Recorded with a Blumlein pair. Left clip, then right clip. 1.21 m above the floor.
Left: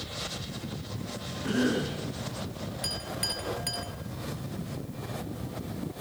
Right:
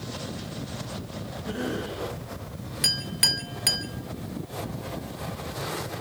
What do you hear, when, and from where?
1.4 s a cough: 40° left, 9 m
2.8 s a clink: 60° right, 2.5 m